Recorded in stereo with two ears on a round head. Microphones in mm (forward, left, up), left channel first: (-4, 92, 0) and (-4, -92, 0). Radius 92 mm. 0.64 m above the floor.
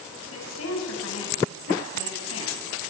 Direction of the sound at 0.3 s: 70° left (ahead or behind).